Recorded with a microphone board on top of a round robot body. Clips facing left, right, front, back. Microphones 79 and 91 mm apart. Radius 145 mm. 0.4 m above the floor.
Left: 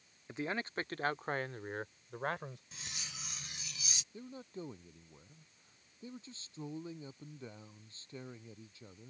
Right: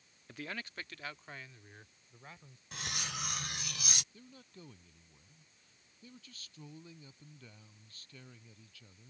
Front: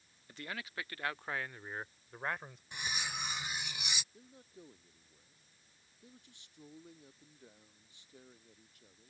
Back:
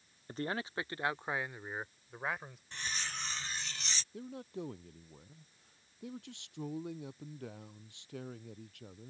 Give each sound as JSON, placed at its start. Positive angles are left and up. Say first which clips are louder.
{"t": 0.3, "sound": "a man speaking", "louder": "left 6 dB, back 7 dB", "azimuth_deg": 150}
{"t": 2.7, "sound": "cutlery clinking", "louder": "right 9 dB, front 1 dB", "azimuth_deg": -75}
{"t": 4.1, "sound": "a man speaking", "louder": "left 9 dB, back 14 dB", "azimuth_deg": 155}